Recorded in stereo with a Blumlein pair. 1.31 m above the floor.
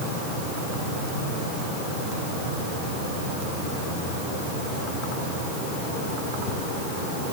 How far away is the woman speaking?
I don't hear a woman speaking.